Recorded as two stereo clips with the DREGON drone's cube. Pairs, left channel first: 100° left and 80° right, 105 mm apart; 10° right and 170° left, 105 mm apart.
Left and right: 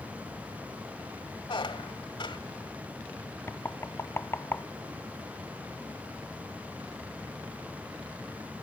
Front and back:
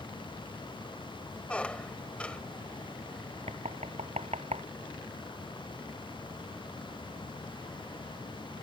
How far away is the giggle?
No giggle in this recording.